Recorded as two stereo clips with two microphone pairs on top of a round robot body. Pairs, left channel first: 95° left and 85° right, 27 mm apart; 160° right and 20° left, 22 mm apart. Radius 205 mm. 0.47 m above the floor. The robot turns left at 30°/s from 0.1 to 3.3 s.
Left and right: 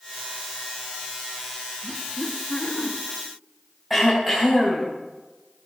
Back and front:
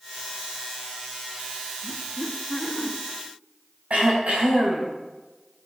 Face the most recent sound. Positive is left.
turn(degrees=0)